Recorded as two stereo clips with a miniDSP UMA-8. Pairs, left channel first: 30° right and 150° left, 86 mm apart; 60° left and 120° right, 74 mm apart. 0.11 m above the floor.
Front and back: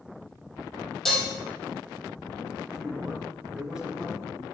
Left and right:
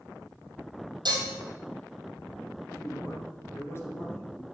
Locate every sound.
1.1 s dishes clattering: 120° right, 3 m
2.7 s a man speaking: 75° left, 2 m